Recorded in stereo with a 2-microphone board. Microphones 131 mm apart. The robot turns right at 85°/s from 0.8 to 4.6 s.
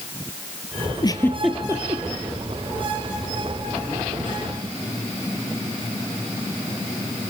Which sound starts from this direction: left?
A giggle, at 1.0 s.